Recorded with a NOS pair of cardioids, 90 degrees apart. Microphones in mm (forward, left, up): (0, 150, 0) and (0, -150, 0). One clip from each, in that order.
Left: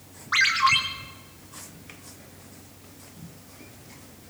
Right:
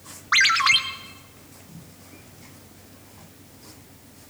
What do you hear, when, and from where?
0.3 s a ringtone: 40° right, 1.5 m